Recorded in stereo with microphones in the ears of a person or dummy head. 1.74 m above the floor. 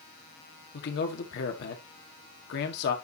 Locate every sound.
0.7 s a man speaking: 60° left (ahead or behind), 1.7 m